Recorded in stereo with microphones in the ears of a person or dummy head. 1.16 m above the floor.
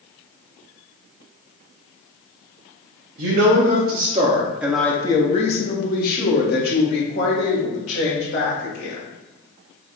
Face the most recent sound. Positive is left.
turn(degrees=60)  # may be behind; listen again after turning